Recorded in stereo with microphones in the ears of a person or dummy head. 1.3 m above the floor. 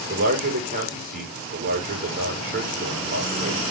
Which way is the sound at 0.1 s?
50° right (ahead or behind).